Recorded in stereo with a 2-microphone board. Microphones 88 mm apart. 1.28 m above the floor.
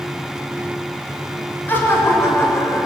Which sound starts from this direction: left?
Laughter, at 1.7 s.